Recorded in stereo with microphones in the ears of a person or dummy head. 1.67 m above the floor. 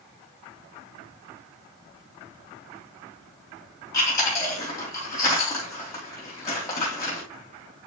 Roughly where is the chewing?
Left.